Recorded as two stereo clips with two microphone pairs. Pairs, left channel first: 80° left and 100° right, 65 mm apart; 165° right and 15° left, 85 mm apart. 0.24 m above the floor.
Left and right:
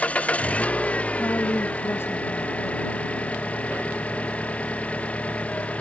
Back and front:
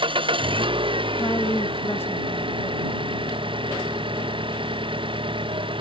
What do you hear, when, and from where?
0.0 s an engine running: 10° left
1.1 s a woman speaking: 130° left